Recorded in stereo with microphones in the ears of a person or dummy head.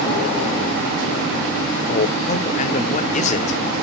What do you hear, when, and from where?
1.9 s a man speaking: 35° left (ahead or behind), 0.7 m